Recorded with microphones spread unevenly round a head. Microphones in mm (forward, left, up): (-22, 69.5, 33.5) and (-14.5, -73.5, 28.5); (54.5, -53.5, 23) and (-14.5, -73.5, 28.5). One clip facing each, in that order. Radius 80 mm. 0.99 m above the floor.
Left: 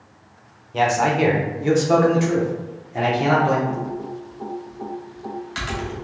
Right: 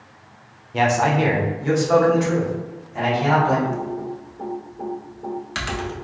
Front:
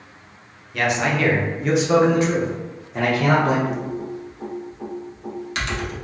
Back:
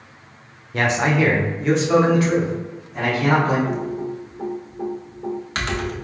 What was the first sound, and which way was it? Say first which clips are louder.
A man speaking: even, back 2 dB; 165° right.